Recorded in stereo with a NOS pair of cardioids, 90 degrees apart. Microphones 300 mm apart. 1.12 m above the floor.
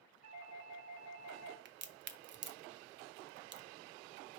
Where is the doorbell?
55° right, 1.7 m.